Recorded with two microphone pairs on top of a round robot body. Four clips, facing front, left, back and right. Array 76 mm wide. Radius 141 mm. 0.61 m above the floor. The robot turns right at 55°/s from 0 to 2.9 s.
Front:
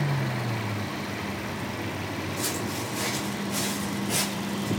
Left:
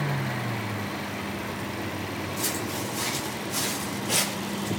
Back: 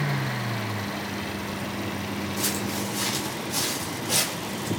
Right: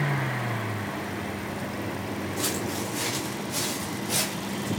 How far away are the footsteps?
About 1.6 m.